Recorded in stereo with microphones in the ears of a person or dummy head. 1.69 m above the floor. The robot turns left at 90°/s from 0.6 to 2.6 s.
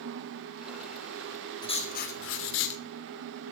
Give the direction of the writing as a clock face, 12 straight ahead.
7 o'clock.